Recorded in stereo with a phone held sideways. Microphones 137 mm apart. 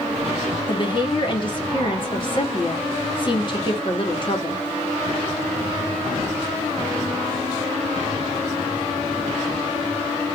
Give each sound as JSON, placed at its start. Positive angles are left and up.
{"t": 0.7, "sound": "a woman speaking", "side_deg": 40, "distance_m": 1.7}